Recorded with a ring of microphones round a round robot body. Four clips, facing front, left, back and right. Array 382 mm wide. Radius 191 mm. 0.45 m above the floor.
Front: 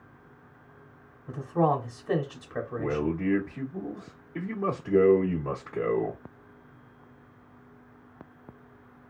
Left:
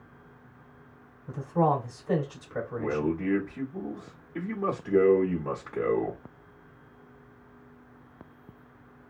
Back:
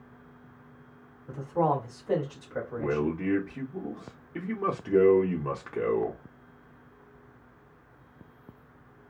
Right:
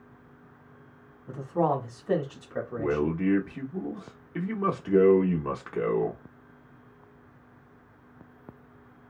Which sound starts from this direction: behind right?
A man speaking, at 2.8 s.